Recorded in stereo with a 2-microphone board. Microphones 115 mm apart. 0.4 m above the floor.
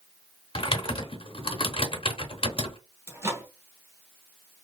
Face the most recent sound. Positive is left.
turn(degrees=-20)  # may be behind; listen again after turning